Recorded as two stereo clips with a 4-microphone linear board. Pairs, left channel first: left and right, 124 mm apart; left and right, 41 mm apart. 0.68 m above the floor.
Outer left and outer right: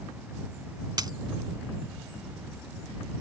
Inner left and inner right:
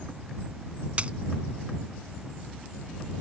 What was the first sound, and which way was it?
A dropped coin, 35° right (ahead or behind).